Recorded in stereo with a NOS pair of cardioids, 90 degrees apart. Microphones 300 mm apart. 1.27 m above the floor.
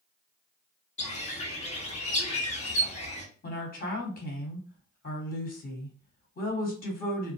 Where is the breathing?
No breathing in this recording.